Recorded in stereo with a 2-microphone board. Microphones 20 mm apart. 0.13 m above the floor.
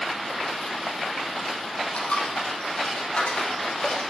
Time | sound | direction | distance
1.9 | a dropped coin | 80° left | 3 m